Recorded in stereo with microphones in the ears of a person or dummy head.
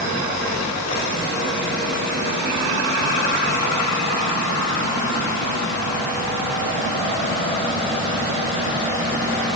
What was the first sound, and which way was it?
Only background noise.